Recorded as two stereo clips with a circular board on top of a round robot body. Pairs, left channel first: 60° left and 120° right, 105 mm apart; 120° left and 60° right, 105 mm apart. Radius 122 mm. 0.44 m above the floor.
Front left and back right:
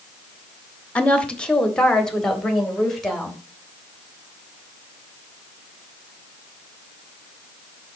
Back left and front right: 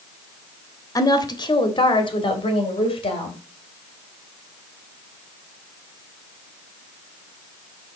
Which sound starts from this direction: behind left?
A woman speaking, at 0.9 s.